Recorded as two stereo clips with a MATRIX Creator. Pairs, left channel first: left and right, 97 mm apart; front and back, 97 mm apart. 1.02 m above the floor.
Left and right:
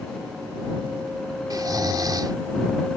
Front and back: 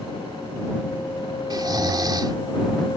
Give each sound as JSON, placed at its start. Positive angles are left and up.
{"t": 1.5, "sound": "snoring", "azimuth_deg": -135}